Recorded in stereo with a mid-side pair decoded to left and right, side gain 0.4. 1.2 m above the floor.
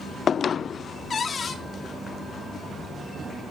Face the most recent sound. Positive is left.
turn(degrees=50)